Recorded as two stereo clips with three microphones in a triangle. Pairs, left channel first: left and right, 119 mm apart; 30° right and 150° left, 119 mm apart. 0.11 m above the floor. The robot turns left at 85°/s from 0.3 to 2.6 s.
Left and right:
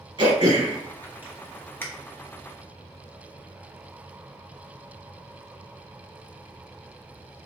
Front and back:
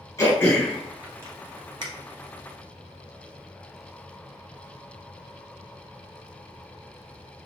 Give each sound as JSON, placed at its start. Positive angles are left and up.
{"t": 0.2, "sound": "throat clearing", "azimuth_deg": -80, "distance_m": 1.8}